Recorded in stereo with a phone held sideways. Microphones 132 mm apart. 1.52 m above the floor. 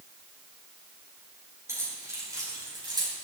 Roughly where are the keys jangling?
Right.